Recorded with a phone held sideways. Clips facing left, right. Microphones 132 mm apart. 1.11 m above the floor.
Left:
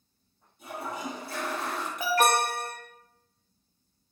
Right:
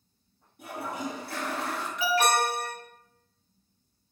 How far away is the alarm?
About 0.6 m.